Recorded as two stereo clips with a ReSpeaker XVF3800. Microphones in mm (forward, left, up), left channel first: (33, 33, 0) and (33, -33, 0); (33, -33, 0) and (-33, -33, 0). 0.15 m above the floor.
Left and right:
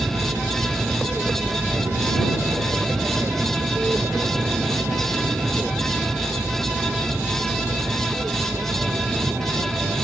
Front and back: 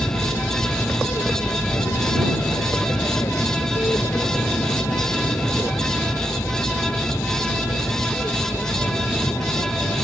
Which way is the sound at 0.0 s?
30° right.